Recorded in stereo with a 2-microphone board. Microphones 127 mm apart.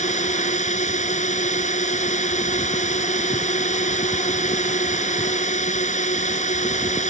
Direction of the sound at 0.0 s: 70° left (ahead or behind).